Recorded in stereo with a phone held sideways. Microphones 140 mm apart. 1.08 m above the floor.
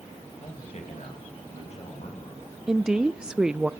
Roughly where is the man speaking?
Left.